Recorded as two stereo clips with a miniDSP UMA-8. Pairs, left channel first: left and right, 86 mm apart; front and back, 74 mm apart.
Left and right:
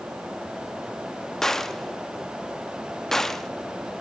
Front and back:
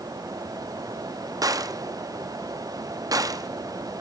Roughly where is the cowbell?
I don't hear a cowbell.